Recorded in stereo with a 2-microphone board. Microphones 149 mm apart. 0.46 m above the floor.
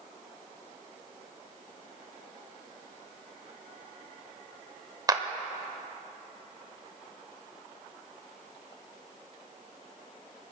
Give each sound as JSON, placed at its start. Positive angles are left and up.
{"t": 5.1, "sound": "a clap", "side_deg": -25, "distance_m": 1.1}